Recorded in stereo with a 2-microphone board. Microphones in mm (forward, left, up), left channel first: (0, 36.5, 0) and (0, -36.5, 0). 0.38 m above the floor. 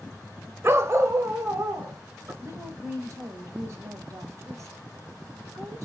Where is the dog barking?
30° right (ahead or behind), 0.5 m; by 2.3 s 40° right (ahead or behind), 1.6 m.